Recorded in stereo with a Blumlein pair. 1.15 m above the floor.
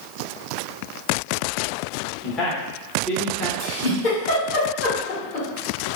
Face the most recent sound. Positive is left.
turn(degrees=40)